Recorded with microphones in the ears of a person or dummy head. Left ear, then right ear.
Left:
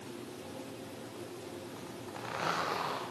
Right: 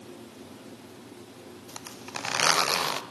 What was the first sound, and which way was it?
A zipper, 70° right (ahead or behind).